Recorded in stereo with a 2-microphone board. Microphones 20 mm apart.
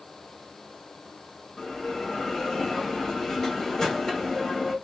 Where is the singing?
I don't hear singing.